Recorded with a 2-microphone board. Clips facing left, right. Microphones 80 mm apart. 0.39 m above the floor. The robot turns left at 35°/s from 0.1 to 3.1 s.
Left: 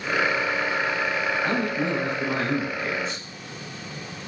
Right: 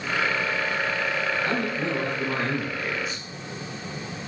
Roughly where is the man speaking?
Centre.